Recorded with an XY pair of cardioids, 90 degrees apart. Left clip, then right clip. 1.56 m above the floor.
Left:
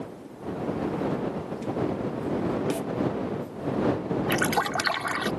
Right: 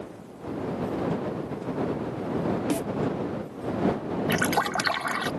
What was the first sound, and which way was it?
A snare drum, 30° right.